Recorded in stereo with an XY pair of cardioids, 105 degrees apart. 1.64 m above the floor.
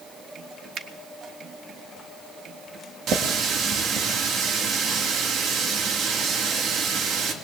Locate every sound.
0.8 s a finger snap: 60° right, 1.2 m
3.1 s a running tap: 70° right, 2 m